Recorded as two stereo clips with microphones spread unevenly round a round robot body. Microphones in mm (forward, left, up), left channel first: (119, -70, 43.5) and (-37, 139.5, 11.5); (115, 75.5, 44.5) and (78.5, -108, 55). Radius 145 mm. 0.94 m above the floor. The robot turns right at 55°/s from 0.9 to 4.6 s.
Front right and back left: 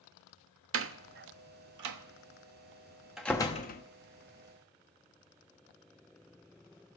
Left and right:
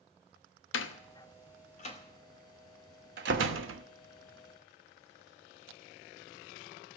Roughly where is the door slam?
Left.